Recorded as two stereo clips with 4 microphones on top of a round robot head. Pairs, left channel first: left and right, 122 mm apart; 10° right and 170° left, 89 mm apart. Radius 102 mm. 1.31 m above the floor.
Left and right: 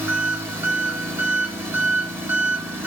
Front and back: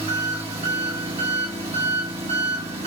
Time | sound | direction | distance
0.0 | an engine running | 160° right | 1.9 m